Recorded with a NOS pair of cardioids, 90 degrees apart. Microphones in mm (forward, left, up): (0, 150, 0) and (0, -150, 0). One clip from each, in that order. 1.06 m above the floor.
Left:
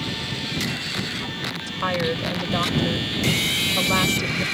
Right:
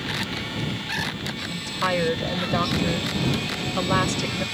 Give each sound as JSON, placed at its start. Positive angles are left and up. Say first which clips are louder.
{"t": 1.5, "sound": "a woman speaking", "louder": "right 3 dB", "azimuth_deg": -15}